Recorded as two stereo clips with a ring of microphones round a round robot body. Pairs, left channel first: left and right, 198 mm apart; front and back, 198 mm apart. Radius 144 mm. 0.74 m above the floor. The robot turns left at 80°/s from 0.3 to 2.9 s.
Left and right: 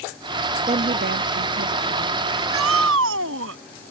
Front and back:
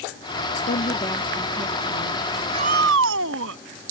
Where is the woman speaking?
35° right; by 2.2 s 155° right.